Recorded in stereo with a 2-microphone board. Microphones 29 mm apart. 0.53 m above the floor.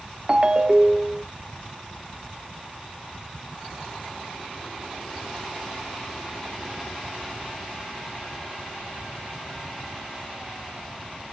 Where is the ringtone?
25° right (ahead or behind), 0.5 m.